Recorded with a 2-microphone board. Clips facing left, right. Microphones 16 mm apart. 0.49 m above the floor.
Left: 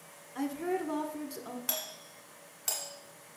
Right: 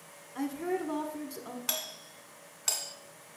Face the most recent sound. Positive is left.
turn(degrees=-25)  # may be behind; listen again after turning